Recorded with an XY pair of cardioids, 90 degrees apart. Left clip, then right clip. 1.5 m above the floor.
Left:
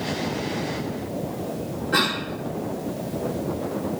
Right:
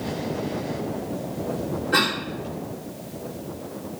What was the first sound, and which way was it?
A cough, 15° right.